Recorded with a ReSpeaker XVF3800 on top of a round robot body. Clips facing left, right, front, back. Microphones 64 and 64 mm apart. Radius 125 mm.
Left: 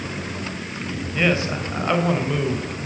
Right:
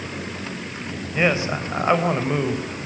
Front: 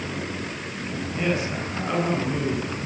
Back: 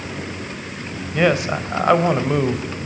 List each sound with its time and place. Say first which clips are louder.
1.1 s a man speaking: right 1 dB, back 9 dB; 160° right, 4 m